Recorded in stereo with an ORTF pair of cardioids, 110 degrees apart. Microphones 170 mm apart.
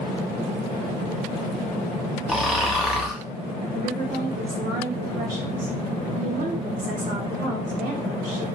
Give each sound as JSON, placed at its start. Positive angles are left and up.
{"t": 2.3, "sound": "snoring", "azimuth_deg": -5, "distance_m": 0.8}
{"t": 3.7, "sound": "a woman speaking", "azimuth_deg": -55, "distance_m": 1.7}